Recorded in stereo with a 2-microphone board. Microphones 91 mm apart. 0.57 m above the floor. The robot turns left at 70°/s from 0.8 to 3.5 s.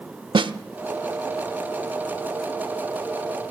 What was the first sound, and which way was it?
A snare drum, 60° right (ahead or behind).